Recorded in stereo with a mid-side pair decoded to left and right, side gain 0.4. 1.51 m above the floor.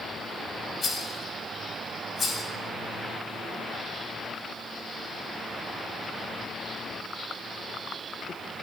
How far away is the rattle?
About 4 m.